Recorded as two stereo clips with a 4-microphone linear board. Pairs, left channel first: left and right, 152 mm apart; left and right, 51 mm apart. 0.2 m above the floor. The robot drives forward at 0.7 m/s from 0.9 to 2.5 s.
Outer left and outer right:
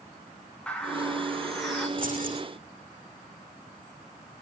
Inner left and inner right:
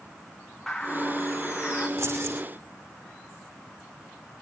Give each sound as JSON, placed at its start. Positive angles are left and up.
{"t": 0.7, "sound": "a bird", "side_deg": 5, "distance_m": 4.0}
{"t": 2.0, "sound": "keys jangling", "side_deg": -65, "distance_m": 9.0}